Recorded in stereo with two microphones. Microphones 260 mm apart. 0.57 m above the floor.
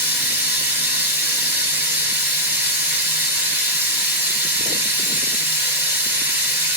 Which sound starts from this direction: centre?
Running water, at 0.0 s.